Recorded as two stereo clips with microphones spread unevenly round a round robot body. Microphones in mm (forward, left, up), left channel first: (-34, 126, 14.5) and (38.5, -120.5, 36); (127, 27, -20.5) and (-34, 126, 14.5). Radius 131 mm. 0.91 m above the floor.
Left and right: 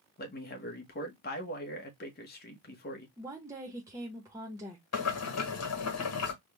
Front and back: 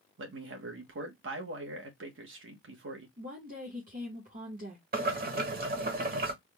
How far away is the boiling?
About 1.2 m.